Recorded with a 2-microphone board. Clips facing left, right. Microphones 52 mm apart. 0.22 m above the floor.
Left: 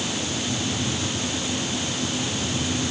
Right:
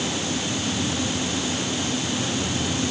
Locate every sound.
Only background noise.